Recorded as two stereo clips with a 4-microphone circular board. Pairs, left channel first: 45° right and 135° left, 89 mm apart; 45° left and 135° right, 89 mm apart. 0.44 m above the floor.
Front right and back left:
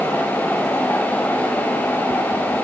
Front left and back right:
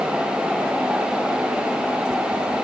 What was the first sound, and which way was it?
Only background noise.